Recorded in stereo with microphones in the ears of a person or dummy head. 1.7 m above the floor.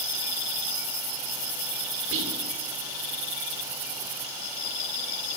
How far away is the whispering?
About 6 m.